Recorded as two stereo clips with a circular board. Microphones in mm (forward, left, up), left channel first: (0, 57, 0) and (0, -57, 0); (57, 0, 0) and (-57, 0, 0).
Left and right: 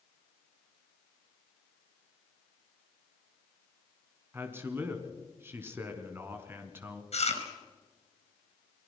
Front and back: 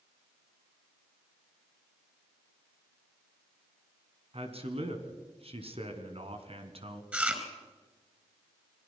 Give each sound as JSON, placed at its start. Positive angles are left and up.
{"t": 4.3, "sound": "a man speaking", "azimuth_deg": -160, "distance_m": 3.0}
{"t": 7.1, "sound": "chewing", "azimuth_deg": 105, "distance_m": 4.5}